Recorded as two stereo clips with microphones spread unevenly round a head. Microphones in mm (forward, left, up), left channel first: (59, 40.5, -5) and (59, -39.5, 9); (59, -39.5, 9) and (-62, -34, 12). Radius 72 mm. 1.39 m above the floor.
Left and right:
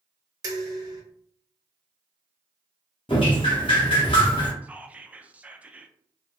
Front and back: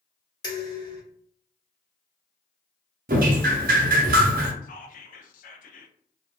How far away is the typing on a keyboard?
I don't hear typing on a keyboard.